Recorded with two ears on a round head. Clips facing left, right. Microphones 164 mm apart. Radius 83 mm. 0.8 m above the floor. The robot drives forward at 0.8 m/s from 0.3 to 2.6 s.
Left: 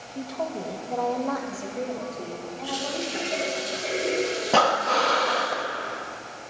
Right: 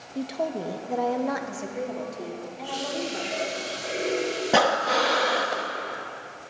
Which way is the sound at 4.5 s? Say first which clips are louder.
Even; 10° right (ahead or behind).